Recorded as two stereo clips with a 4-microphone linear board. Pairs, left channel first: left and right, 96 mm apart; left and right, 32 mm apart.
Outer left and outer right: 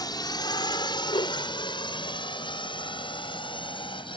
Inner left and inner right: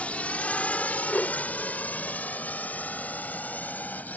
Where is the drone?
45° left (ahead or behind); by 4.2 s 60° left (ahead or behind).